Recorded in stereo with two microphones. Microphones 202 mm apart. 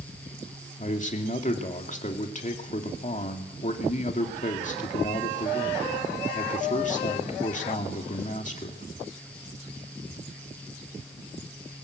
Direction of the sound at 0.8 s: 35° left (ahead or behind).